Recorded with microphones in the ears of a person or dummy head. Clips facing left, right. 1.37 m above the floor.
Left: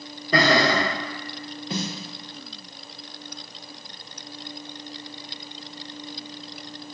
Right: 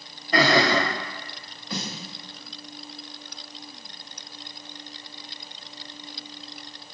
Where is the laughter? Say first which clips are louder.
Left 1 dB; 75° left (ahead or behind), 1.5 m.